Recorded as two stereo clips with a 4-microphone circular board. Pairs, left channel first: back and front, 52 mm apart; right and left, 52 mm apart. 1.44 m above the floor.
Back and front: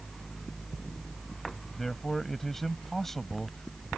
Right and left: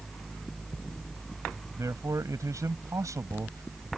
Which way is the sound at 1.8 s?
95° left.